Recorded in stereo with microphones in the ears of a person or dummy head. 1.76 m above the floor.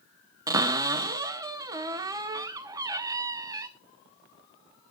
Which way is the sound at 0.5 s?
15° right (ahead or behind).